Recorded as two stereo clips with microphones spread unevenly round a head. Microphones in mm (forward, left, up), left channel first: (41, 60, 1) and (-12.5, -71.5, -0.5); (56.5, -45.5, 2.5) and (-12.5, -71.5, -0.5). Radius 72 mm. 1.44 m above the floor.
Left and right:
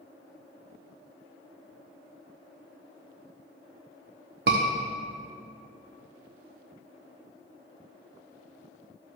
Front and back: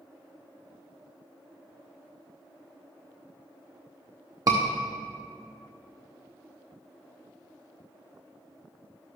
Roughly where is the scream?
Behind right.